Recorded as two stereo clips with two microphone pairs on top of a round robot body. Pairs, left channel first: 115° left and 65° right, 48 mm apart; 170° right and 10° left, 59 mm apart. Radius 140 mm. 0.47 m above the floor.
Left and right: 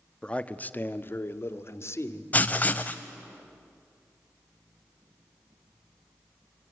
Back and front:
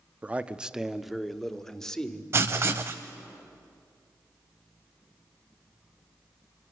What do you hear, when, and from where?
0.2 s a man speaking: 75° left, 1.2 m; by 2.2 s 115° left, 2.5 m
2.3 s writing: 50° left, 0.5 m